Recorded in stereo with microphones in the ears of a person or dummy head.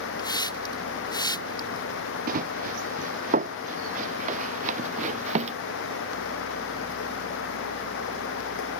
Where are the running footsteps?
50° right (ahead or behind); by 5.5 s 40° right (ahead or behind).